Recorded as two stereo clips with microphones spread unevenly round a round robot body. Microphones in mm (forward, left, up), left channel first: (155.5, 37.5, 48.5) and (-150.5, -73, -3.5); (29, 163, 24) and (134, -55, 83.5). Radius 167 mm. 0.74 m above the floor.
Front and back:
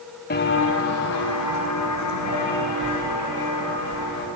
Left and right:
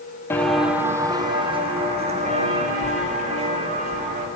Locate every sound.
0.3 s footsteps: 20° left, 0.8 m; by 4.3 s 10° right, 4 m